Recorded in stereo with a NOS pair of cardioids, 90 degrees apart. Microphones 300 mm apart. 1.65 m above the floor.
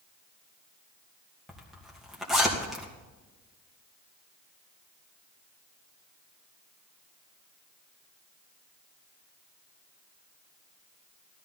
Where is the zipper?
Straight ahead, 2.5 m.